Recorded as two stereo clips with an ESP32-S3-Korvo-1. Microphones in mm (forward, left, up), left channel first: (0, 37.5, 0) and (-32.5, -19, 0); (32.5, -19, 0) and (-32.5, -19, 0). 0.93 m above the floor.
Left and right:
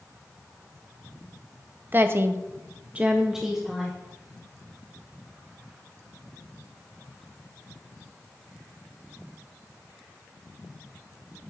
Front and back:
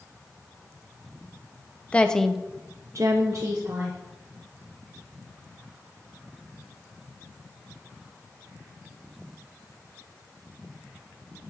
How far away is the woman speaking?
About 0.8 m.